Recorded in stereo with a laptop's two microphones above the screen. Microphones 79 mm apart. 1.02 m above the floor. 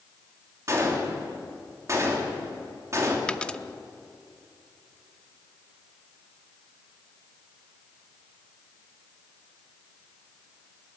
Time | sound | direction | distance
0.7 | a gunshot | 40° right (ahead or behind) | 2.5 m
3.3 | a dropped coin | 15° left (ahead or behind) | 0.5 m